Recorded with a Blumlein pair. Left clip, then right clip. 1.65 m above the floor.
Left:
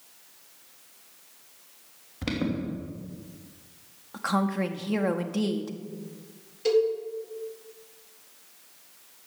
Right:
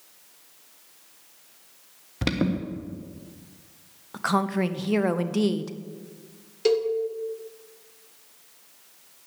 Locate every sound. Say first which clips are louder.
2.2 s an alarm: right 4 dB; 45° right, 1.7 m
4.1 s a woman speaking: right 3 dB; 10° right, 0.9 m
6.7 s a cowbell: even; 65° right, 1.8 m